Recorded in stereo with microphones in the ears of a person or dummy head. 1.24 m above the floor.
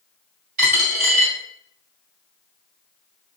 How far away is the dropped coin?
About 1.4 m.